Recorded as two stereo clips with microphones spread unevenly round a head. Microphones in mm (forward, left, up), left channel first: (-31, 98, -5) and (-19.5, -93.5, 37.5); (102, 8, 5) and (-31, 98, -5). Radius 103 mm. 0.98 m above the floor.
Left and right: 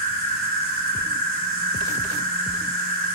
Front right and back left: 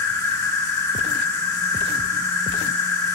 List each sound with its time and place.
0.0 s an insect: 105° right, 1.6 m